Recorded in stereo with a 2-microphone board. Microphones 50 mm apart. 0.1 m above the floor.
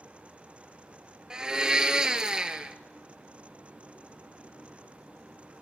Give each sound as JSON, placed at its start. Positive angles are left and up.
{"t": 1.3, "sound": "a blender", "side_deg": -15, "distance_m": 0.5}